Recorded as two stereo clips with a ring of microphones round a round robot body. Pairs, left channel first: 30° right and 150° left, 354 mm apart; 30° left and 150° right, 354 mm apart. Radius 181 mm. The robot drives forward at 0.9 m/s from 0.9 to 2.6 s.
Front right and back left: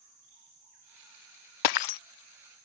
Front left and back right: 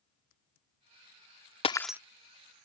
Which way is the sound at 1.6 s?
45° right.